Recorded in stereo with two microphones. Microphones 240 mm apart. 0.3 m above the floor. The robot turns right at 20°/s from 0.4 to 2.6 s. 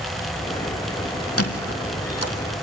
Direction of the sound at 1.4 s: 70° left (ahead or behind).